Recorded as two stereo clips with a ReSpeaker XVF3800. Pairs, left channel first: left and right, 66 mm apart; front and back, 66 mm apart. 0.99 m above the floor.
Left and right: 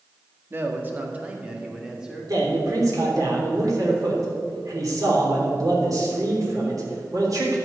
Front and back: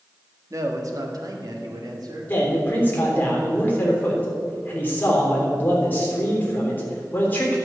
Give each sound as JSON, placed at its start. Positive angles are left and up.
{"t": 0.5, "sound": "a man speaking", "azimuth_deg": -145, "distance_m": 1.5}
{"t": 2.3, "sound": "a man speaking", "azimuth_deg": -60, "distance_m": 3.5}